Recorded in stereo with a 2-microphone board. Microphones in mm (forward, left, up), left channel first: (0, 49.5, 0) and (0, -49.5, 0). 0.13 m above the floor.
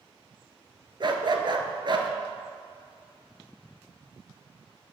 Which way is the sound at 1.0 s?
50° right (ahead or behind).